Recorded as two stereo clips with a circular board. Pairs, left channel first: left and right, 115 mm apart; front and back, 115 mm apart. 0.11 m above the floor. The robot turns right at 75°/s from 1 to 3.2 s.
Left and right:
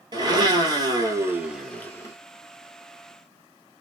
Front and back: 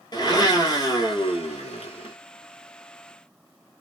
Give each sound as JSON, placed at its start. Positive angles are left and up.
{"t": 0.1, "sound": "a blender", "azimuth_deg": -45, "distance_m": 0.8}